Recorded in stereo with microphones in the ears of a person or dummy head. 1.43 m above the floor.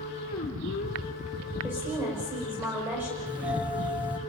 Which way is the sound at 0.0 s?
50° left (ahead or behind).